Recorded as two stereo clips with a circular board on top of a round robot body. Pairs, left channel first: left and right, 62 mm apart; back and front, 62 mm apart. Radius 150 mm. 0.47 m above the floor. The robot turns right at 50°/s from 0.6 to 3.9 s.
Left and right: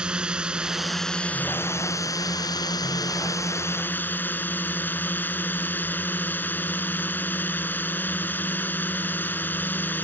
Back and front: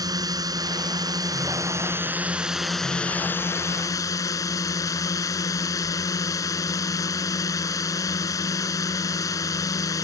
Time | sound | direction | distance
0.0 | a drone | 15° right | ?